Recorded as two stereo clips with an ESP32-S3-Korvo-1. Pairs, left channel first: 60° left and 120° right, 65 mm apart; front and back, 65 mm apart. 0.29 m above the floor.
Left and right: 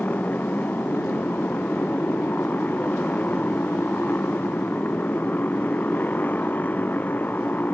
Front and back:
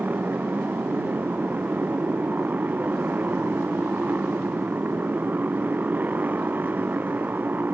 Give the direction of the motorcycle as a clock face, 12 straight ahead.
8 o'clock.